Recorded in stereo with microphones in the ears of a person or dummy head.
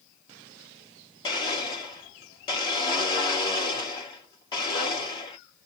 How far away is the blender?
About 3 m.